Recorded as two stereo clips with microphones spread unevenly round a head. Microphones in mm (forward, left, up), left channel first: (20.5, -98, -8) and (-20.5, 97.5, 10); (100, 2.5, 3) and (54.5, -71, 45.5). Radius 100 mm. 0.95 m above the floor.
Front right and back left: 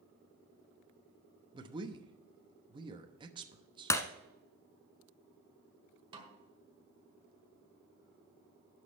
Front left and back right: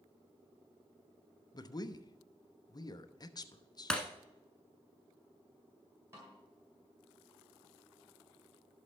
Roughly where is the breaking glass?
Behind right.